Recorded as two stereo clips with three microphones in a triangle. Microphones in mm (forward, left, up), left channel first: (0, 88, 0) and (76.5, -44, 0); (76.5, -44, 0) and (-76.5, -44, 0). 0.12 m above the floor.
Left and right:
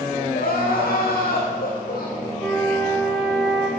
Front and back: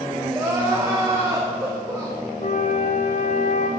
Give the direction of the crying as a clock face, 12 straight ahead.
8 o'clock.